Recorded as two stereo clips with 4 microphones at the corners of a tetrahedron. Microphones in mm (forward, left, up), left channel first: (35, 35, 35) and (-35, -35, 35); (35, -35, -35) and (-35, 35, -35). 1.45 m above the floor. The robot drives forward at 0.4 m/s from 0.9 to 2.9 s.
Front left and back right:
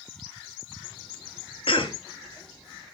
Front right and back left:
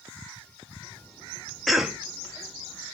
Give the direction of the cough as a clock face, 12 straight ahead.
11 o'clock.